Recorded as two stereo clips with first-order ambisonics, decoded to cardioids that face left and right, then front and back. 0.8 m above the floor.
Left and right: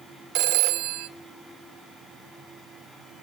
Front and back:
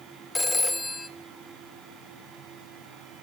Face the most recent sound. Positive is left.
turn(degrees=-85)